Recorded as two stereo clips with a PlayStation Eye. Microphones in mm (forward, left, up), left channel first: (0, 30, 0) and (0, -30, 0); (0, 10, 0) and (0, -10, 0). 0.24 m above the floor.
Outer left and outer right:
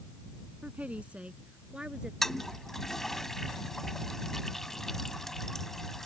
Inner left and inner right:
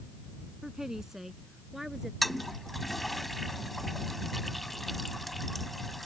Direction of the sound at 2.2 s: 5° left (ahead or behind).